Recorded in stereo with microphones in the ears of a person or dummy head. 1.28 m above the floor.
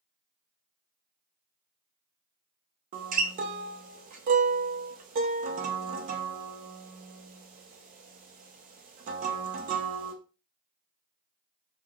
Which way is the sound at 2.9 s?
40° right (ahead or behind).